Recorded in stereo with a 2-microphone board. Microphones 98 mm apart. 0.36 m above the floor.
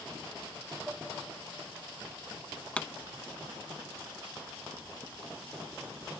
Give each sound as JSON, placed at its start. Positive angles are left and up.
{"t": 0.9, "sound": "dishes clattering", "side_deg": -10, "distance_m": 8.0}
{"t": 2.8, "sound": "a pop", "side_deg": 15, "distance_m": 0.5}